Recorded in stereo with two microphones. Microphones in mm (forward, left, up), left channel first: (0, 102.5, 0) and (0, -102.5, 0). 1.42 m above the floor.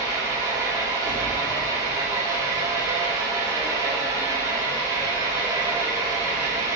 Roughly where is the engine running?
Centre.